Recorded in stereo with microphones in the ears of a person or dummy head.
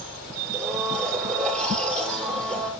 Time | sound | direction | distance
0.5 | a blender | 5° left (ahead or behind) | 6.5 m